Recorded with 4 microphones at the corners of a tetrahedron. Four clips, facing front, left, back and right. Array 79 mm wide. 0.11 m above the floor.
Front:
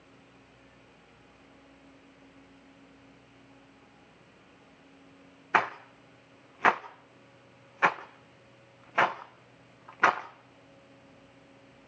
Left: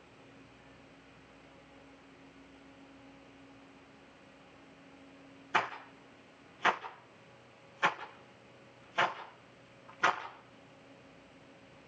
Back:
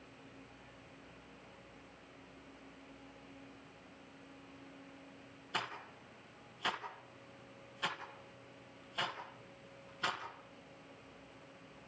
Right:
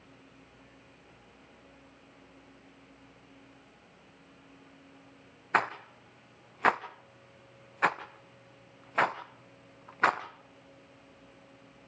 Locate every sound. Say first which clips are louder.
5.5 s a rattle: right 4 dB, front 15 dB; 35° right, 2 m